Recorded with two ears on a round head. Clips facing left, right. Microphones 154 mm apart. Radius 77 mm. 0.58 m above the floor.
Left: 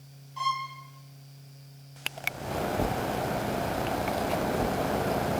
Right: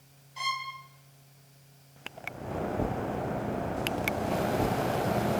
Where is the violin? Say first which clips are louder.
Left 4 dB; 20° right (ahead or behind), 2.5 m.